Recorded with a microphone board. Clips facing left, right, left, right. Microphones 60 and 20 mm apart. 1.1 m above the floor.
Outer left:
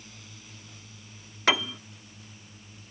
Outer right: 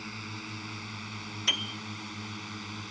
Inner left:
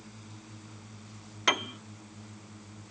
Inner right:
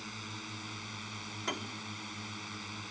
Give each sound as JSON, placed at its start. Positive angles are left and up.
{"t": 0.0, "sound": "a drone", "side_deg": -60}
{"t": 1.5, "sound": "a piano", "side_deg": 65}